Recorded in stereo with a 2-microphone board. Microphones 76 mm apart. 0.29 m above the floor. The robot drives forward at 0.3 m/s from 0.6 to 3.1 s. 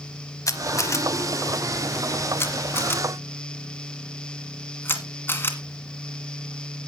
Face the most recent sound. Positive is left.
turn(degrees=30)  # may be behind; listen again after turning